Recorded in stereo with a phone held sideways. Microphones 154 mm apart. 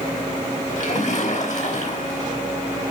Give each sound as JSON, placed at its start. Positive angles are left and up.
{"t": 0.8, "sound": "a splash", "side_deg": 55, "distance_m": 4.0}